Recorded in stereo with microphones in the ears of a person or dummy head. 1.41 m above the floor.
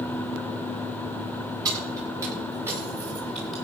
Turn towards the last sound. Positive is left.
turn(degrees=-5)  # may be behind; listen again after turning